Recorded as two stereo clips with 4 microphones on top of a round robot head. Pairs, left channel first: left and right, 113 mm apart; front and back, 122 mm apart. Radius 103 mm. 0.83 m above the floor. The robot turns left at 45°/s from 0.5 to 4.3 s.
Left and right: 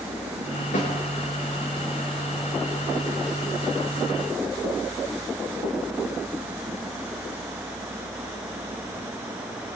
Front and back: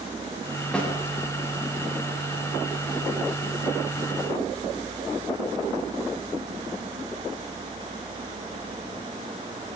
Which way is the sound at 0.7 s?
80° left.